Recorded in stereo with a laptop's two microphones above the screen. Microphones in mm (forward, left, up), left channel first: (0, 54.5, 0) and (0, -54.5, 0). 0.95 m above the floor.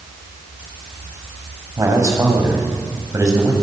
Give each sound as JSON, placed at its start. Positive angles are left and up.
{"t": 1.8, "sound": "a man speaking", "side_deg": -30, "distance_m": 6.0}